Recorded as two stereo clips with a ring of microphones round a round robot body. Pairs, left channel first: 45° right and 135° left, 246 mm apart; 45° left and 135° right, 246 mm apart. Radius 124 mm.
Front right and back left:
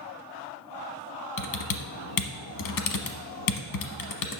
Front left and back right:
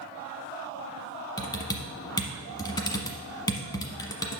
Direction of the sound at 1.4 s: 30° right.